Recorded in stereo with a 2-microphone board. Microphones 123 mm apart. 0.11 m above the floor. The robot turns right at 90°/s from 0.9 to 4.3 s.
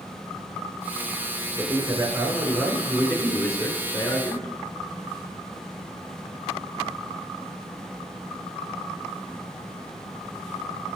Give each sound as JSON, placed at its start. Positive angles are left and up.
{"t": 1.6, "sound": "a man speaking", "side_deg": -25, "distance_m": 1.1}